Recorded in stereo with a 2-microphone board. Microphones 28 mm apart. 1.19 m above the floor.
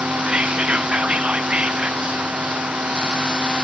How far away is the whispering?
About 0.7 m.